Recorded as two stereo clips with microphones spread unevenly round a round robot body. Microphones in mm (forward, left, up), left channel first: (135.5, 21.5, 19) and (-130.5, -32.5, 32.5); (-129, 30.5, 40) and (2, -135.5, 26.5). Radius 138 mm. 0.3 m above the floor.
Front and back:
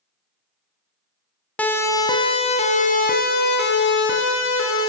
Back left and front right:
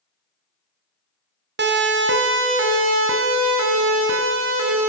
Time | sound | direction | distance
1.6 | a siren | 70° right | 2.5 m